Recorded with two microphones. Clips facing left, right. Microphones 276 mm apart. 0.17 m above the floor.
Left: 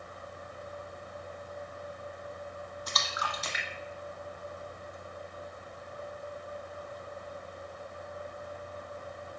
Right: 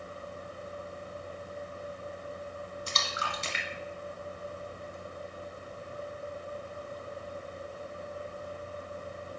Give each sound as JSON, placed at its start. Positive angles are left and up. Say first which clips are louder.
{"t": 2.9, "sound": "a splash", "louder": "right 1 dB", "side_deg": -30, "distance_m": 1.0}